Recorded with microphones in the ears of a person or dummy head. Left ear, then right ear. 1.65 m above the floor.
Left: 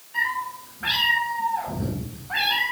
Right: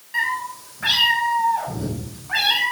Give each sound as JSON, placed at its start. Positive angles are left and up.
{"t": 0.1, "sound": "a cat meowing", "side_deg": -60, "distance_m": 4.5}